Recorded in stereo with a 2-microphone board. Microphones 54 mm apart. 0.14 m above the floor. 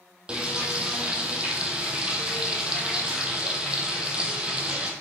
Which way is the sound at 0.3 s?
20° right (ahead or behind).